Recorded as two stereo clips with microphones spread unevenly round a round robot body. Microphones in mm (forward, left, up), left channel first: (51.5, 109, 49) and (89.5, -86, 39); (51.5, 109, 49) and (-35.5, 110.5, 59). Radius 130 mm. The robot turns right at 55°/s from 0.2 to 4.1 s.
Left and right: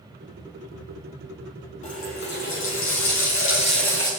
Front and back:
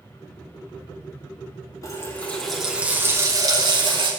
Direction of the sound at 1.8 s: 50° left.